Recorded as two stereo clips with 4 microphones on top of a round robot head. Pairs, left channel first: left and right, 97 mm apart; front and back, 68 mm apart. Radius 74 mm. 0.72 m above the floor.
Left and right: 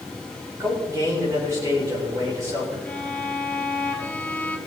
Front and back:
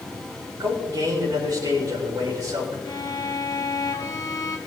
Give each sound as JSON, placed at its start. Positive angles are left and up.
{"t": 0.6, "sound": "a man speaking", "azimuth_deg": -150, "distance_m": 4.0}
{"t": 2.9, "sound": "a violin", "azimuth_deg": 20, "distance_m": 1.8}